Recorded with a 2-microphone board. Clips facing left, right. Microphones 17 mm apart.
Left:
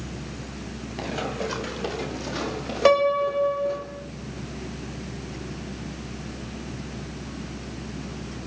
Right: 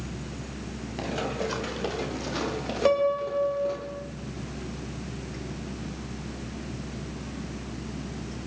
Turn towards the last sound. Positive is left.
turn(degrees=45)  # may be behind; listen again after turning